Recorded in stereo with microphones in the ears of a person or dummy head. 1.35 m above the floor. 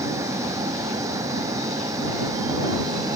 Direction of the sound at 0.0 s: 15° right (ahead or behind).